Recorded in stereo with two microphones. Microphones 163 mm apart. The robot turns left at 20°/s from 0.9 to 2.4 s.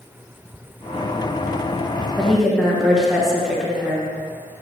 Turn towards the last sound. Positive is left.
turn(degrees=0)  # may be behind; listen again after turning